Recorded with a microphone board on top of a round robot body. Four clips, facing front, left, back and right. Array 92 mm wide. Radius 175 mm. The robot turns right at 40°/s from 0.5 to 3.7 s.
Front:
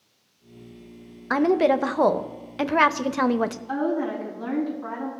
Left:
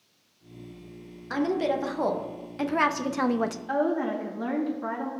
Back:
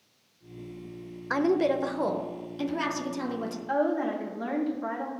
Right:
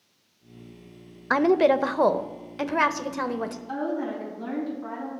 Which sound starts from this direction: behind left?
A woman speaking, at 3.7 s.